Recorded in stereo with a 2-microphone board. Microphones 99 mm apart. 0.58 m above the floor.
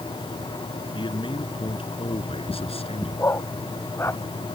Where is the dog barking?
25° left (ahead or behind).